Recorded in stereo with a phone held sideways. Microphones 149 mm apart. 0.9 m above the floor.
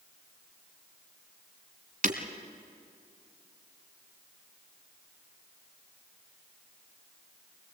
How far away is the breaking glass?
About 1.7 m.